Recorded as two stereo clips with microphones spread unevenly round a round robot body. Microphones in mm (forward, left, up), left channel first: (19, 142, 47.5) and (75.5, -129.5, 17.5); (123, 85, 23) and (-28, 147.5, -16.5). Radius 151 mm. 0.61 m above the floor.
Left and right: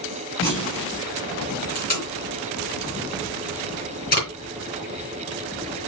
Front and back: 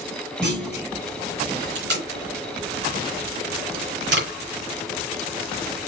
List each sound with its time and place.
0.4 s a clunk: 160° left, 4.5 m
1.8 s tape being pulled: 165° left, 3.5 m